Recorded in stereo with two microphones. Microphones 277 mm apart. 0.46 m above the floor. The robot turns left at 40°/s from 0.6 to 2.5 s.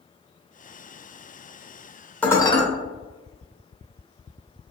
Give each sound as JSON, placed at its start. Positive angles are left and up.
{"t": 2.2, "sound": "dishes clattering", "side_deg": 5, "distance_m": 0.7}